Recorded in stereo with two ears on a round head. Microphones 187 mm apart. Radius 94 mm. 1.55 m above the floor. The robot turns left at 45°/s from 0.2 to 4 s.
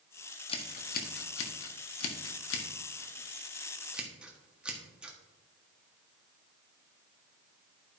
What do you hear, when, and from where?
0.5 s scissors: 25° left (ahead or behind), 1.4 m; by 5.2 s 5° right (ahead or behind), 1.4 m